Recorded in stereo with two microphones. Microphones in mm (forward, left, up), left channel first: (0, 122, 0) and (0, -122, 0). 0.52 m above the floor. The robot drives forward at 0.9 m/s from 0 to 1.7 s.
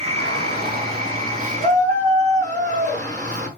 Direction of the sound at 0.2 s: 50° right (ahead or behind).